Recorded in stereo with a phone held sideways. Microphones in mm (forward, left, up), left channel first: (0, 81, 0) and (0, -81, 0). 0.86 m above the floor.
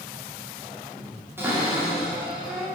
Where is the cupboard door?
15° right (ahead or behind), 2.5 m.